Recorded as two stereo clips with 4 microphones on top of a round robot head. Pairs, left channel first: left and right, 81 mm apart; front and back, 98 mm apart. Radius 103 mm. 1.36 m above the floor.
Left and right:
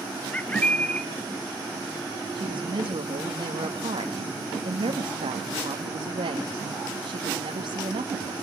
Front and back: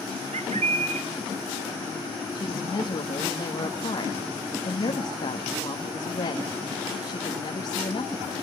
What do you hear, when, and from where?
0.3 s a bird: 165° left, 1.6 m
2.3 s a woman speaking: 55° right, 2 m